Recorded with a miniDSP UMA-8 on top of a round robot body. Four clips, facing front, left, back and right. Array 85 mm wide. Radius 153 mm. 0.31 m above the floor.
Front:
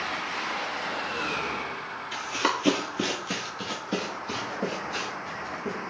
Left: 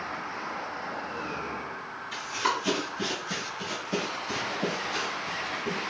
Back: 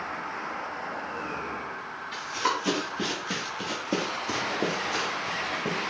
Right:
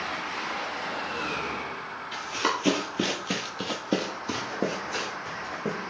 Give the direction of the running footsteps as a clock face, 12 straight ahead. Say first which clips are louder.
Even, front 1 dB; 12 o'clock.